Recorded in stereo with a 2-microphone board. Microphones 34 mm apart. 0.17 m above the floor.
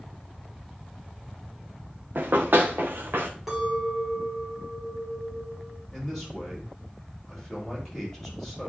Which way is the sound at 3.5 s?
10° right (ahead or behind).